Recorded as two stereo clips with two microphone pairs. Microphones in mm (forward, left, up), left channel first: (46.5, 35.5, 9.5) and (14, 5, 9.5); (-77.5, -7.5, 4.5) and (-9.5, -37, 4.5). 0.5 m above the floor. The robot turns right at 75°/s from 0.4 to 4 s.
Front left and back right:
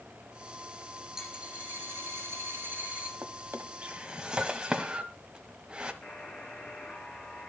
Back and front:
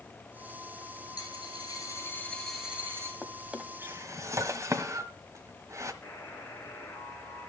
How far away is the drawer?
About 1.4 m.